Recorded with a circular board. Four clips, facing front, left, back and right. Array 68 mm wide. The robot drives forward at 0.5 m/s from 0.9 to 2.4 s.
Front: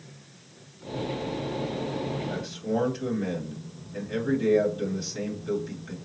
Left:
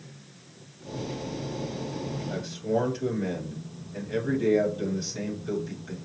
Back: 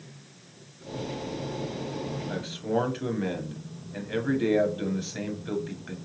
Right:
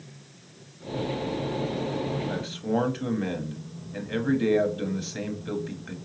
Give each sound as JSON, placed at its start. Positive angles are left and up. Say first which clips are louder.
{"t": 2.3, "sound": "a man speaking", "louder": "even, back 1 dB", "azimuth_deg": -125, "distance_m": 1.1}